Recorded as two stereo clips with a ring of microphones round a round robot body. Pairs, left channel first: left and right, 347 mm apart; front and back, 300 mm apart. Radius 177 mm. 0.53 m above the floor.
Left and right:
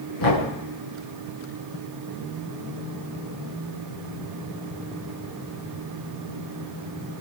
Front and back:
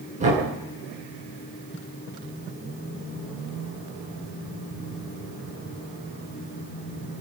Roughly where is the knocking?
Behind left.